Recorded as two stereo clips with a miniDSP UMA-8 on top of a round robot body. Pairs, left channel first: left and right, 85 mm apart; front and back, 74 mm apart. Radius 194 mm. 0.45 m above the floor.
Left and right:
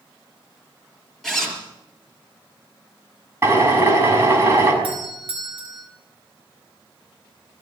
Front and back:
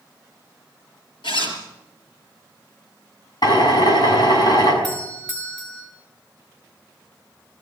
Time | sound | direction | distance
1.2 | a zipper | straight ahead | 4.5 m
3.4 | a drill | 30° right | 7 m
4.8 | a doorbell | 75° right | 8 m